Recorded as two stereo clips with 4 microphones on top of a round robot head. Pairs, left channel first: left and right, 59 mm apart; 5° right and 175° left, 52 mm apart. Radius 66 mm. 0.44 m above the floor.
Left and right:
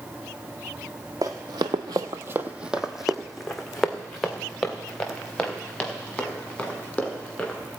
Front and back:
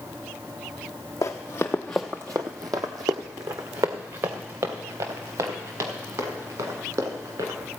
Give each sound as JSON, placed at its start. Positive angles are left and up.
{"t": 1.2, "sound": "running footsteps", "azimuth_deg": -45, "distance_m": 0.9}